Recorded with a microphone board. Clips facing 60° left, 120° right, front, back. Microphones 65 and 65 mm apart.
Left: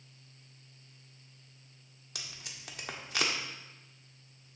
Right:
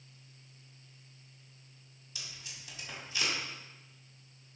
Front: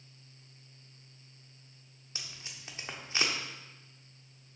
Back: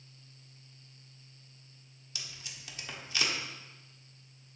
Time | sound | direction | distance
2.1 | tape being pulled | 55° left | 1.1 m